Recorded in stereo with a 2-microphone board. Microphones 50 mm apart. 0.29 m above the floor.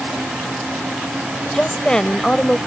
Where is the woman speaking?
15° left (ahead or behind).